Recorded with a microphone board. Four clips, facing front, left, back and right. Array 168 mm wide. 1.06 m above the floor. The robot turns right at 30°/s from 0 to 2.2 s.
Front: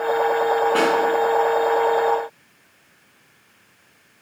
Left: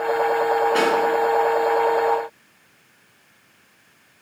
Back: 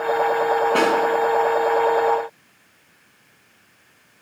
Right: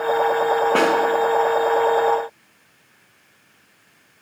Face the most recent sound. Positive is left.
turn(degrees=-55)